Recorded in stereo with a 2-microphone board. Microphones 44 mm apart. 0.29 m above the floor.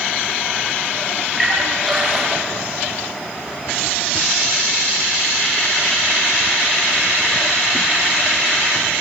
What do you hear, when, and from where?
1.4 s a splash: centre (ahead or behind), 4.5 m